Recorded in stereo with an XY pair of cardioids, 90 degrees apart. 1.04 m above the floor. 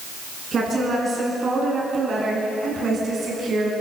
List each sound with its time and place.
0.5 s a woman speaking: 50° right, 10 m; by 3.7 s 60° right, 8 m